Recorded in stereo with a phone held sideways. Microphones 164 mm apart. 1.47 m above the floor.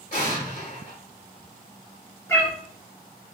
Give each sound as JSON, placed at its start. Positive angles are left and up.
{"t": 0.1, "sound": "an explosion", "side_deg": 50, "distance_m": 1.0}
{"t": 2.3, "sound": "a cat meowing", "side_deg": 15, "distance_m": 0.8}